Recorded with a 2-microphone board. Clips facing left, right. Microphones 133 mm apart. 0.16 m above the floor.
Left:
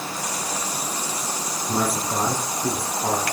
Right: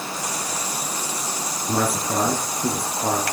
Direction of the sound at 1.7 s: 60° right (ahead or behind).